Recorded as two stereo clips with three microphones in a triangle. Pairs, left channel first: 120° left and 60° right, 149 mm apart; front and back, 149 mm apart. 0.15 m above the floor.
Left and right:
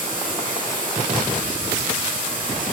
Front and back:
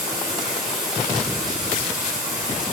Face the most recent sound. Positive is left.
turn(degrees=-90)